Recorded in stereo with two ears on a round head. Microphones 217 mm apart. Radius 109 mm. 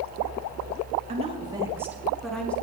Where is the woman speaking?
30° right (ahead or behind), 1.8 m; by 2.5 s 5° left (ahead or behind), 2 m.